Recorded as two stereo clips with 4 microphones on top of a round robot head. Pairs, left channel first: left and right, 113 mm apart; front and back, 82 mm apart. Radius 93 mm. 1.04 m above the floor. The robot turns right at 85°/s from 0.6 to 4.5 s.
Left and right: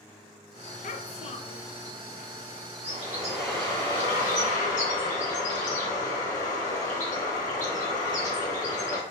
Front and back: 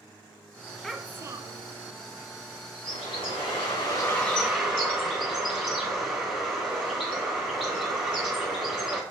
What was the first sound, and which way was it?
A child speaking, 85° left.